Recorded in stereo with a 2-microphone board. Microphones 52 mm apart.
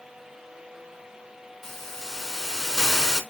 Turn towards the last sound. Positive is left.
turn(degrees=10)  # may be behind; listen again after turning